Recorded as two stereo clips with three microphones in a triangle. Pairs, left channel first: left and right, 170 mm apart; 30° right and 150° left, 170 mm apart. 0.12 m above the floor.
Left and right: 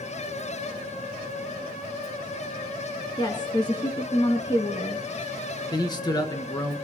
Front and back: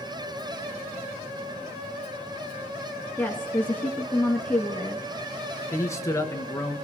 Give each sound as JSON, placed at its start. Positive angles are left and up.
{"t": 3.2, "sound": "a woman speaking", "azimuth_deg": 45, "distance_m": 1.8}
{"t": 5.7, "sound": "a man speaking", "azimuth_deg": 35, "distance_m": 1.7}